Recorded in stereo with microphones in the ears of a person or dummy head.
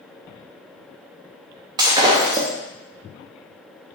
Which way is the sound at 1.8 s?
20° right (ahead or behind).